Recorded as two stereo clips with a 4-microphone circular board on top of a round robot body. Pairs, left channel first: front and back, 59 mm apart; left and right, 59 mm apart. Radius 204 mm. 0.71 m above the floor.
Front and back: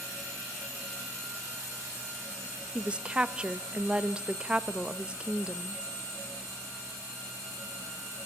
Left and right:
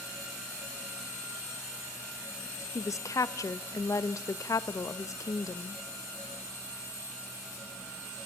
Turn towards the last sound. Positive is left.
turn(degrees=110)